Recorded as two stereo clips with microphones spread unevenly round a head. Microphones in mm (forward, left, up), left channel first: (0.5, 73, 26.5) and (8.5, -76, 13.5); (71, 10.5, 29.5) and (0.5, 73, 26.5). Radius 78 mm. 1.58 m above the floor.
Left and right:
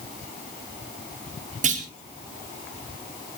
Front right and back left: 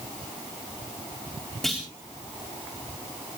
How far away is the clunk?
About 4 m.